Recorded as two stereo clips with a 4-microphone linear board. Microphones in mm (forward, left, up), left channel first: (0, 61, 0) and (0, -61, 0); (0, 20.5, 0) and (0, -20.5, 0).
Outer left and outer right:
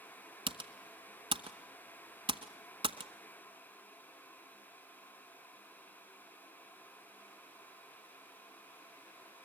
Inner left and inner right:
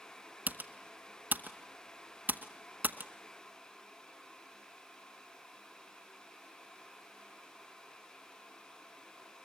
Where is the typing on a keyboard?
45° right (ahead or behind), 1.0 m.